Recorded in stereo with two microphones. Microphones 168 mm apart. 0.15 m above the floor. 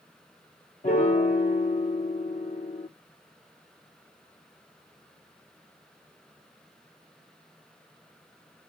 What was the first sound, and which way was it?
A piano, 55° left (ahead or behind).